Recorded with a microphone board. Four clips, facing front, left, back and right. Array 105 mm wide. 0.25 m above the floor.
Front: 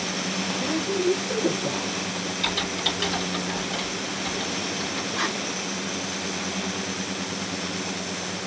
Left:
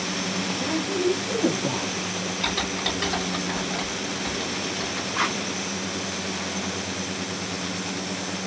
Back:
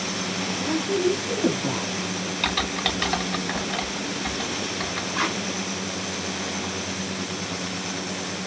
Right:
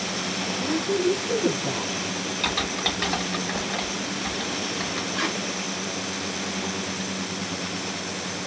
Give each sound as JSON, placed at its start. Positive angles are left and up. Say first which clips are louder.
{"t": 0.6, "sound": "a woman speaking", "louder": "right 2 dB, back 2 dB", "azimuth_deg": 95, "distance_m": 1.3}
{"t": 2.4, "sound": "typing on a keyboard", "louder": "right 1 dB, back 4 dB", "azimuth_deg": -160, "distance_m": 1.7}
{"t": 5.1, "sound": "tape being pulled", "louder": "left 3 dB, back 3 dB", "azimuth_deg": 140, "distance_m": 2.0}